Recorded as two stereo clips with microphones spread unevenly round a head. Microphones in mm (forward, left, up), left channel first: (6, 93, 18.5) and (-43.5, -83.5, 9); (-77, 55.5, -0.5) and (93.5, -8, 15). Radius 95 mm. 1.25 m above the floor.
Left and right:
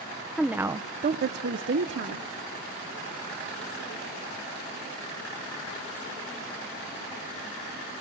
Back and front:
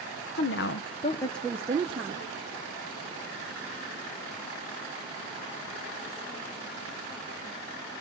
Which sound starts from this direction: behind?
A woman speaking, at 0.4 s.